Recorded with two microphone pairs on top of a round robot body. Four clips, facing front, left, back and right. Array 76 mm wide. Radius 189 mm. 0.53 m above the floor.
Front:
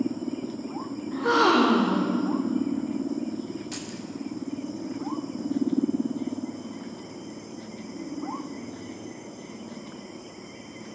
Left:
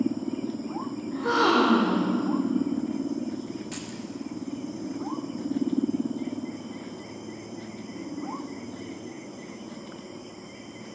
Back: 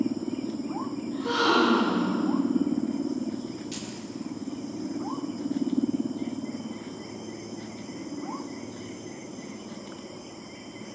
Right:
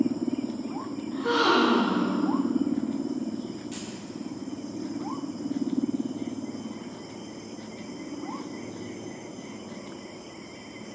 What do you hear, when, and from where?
1.1 s a gasp: 15° left, 0.7 m
3.7 s keys jangling: 40° left, 0.6 m